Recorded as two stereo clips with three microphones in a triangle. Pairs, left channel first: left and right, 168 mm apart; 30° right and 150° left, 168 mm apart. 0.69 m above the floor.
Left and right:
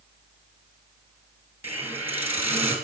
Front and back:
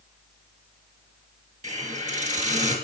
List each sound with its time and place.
1.6 s a hiss: 165° right, 2.5 m